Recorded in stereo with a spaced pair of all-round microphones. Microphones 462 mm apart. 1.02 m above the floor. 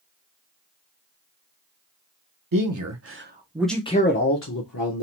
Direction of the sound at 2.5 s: 50° right (ahead or behind).